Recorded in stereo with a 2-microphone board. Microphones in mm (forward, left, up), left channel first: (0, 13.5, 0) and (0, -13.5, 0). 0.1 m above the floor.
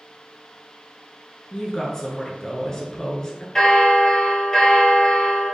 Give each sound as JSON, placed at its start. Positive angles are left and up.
{"t": 1.5, "sound": "a woman speaking", "side_deg": 25, "distance_m": 1.1}
{"t": 3.5, "sound": "a bell", "side_deg": 20, "distance_m": 1.2}